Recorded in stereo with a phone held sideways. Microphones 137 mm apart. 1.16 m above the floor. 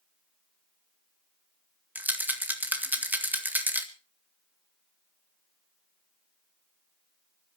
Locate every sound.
1.9 s a rattle: 15° right (ahead or behind), 1.8 m